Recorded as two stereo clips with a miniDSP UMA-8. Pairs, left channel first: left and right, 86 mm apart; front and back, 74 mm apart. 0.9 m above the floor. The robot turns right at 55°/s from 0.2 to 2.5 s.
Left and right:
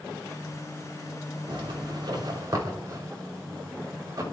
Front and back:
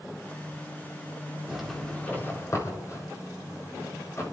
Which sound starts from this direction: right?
A zipper, at 1.5 s.